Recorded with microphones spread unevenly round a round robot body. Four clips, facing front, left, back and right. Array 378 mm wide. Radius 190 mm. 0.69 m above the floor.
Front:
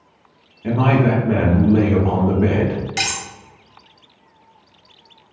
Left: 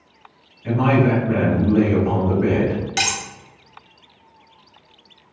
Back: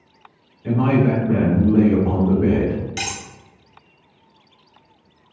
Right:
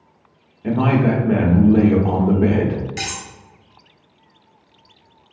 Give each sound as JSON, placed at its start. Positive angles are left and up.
{"t": 0.6, "sound": "a man speaking", "azimuth_deg": -45, "distance_m": 1.6}
{"t": 3.0, "sound": "cutlery clinking", "azimuth_deg": 65, "distance_m": 1.1}